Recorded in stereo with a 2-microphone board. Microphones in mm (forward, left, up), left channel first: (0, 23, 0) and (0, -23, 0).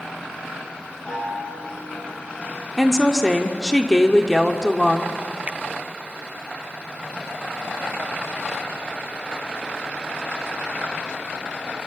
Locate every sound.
1.1 s a chime: 25° left (ahead or behind), 7.5 m
2.8 s a woman speaking: 10° left (ahead or behind), 1.0 m
5.5 s a finger snap: 30° right (ahead or behind), 0.6 m